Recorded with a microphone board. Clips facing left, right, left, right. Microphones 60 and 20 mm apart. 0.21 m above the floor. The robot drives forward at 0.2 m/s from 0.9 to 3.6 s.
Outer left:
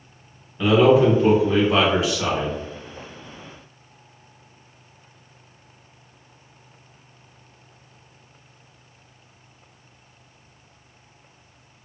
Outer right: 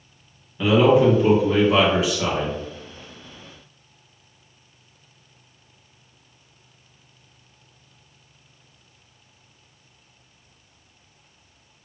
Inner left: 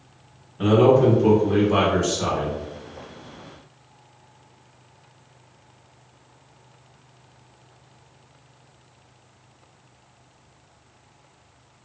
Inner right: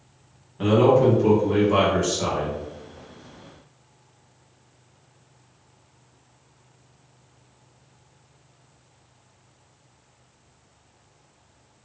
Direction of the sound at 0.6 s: Centre (ahead or behind).